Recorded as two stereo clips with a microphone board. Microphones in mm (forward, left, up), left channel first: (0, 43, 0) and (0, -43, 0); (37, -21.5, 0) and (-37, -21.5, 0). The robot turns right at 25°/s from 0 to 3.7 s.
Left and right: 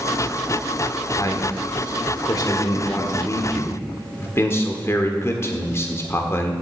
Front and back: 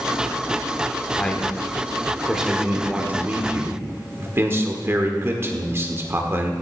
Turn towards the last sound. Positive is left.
turn(degrees=135)